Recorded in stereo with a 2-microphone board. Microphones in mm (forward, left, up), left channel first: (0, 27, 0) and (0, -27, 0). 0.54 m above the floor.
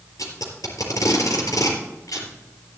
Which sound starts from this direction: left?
Tape being pulled, at 0.2 s.